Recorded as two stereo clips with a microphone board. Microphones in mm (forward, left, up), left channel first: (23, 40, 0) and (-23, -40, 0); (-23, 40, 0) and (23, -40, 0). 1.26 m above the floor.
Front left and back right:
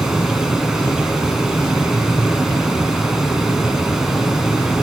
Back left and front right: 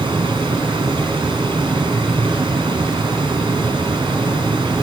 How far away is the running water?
About 3 m.